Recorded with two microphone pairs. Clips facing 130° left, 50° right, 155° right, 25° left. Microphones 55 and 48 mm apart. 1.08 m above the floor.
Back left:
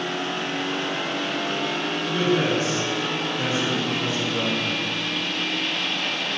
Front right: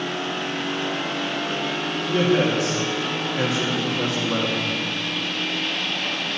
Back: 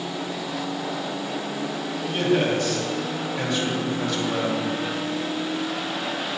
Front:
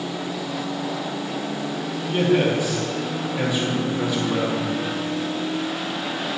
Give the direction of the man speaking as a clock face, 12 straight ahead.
2 o'clock.